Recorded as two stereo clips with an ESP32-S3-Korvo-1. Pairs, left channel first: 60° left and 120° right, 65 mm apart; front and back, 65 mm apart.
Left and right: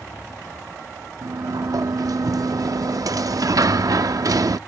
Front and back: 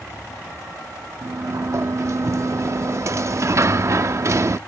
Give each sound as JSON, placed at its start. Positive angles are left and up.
{"t": 1.2, "sound": "a sliding door", "azimuth_deg": -140}